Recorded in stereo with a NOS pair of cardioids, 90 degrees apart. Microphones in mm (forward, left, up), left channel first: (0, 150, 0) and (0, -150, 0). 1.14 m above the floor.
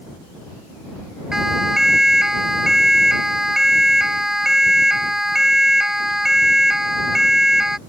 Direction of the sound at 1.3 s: Straight ahead.